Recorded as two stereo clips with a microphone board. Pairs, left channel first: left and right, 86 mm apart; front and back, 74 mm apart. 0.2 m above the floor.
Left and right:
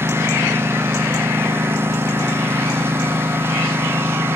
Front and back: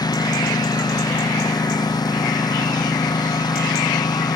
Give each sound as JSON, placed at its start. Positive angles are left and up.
{"t": 0.0, "sound": "a lawn mower", "azimuth_deg": -25}